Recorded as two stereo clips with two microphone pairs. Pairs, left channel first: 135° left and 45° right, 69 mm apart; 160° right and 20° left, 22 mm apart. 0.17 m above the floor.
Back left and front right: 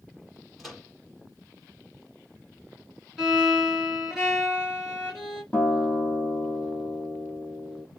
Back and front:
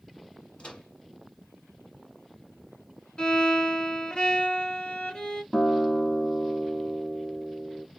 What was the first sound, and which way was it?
A microwave, 135° right.